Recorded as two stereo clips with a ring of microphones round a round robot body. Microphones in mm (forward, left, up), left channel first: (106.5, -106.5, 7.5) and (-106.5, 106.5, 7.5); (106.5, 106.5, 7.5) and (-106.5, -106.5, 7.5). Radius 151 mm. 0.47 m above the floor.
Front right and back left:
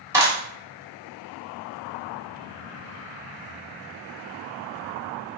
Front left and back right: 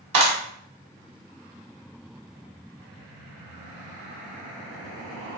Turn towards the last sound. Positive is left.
turn(degrees=-145)